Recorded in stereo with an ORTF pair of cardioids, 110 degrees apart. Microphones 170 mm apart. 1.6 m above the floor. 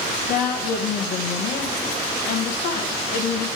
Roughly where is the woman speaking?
Ahead left.